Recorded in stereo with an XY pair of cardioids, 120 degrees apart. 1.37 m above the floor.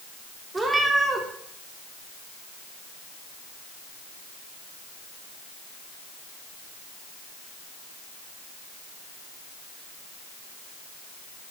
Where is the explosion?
I don't hear an explosion.